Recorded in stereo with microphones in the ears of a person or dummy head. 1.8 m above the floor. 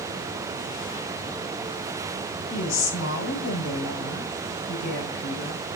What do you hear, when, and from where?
2.5 s a woman speaking: 75° left (ahead or behind), 1.3 m